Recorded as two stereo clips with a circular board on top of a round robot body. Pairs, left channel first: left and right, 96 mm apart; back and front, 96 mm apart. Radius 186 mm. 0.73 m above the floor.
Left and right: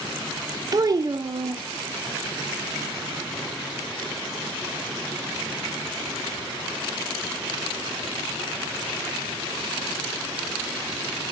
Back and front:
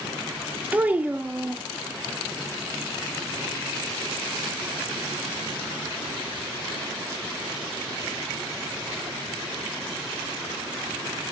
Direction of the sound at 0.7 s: 65° right.